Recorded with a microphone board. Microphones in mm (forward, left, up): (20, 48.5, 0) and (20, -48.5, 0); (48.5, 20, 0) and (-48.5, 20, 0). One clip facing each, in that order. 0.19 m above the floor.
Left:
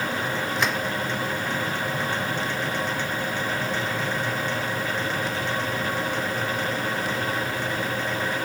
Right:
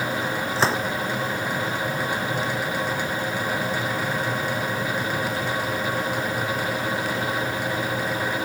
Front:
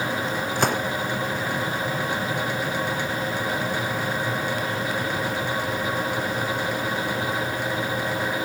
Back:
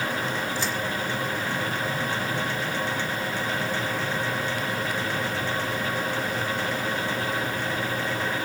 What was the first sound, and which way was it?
A gunshot, 30° right.